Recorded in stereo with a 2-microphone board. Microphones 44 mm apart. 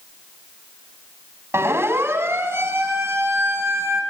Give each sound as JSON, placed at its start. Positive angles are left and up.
{"t": 1.5, "sound": "a siren", "side_deg": -75, "distance_m": 6.5}